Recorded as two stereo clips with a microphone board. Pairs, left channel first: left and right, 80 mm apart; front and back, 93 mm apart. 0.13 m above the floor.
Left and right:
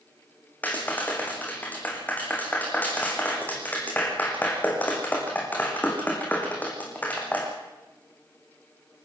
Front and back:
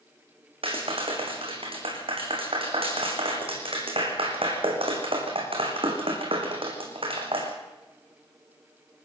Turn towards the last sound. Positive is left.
turn(degrees=160)